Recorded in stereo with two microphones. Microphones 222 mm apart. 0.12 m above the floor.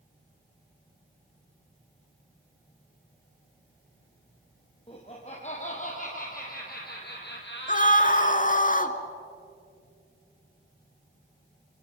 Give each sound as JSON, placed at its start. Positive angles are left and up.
{"t": 4.9, "sound": "laughter", "side_deg": 25, "distance_m": 4.0}
{"t": 7.7, "sound": "a scream", "side_deg": 35, "distance_m": 1.4}